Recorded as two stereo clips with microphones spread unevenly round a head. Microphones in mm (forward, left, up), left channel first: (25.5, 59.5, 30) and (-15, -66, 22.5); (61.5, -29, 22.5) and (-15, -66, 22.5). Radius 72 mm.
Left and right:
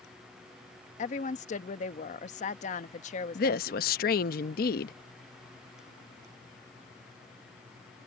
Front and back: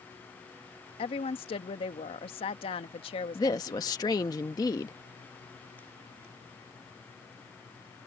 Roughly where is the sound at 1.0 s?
Ahead left.